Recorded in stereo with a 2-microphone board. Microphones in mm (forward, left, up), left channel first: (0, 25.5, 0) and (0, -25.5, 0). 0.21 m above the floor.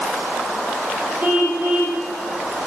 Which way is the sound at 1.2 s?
35° right (ahead or behind).